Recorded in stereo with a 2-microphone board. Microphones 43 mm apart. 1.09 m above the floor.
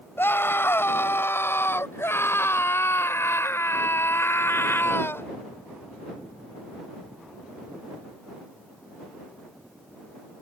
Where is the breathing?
I don't hear breathing.